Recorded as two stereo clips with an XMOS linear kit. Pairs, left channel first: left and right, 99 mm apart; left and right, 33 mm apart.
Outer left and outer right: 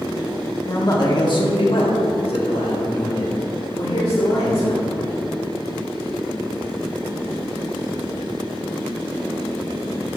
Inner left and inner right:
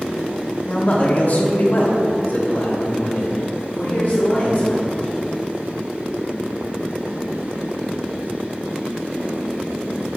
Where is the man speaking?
35° left (ahead or behind), 1.5 m; by 4.9 s 60° left (ahead or behind), 2.5 m.